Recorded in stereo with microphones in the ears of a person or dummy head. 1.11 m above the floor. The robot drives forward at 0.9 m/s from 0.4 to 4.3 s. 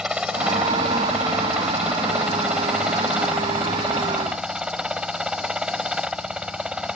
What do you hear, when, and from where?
0.0 s a helicopter: 5° right (ahead or behind)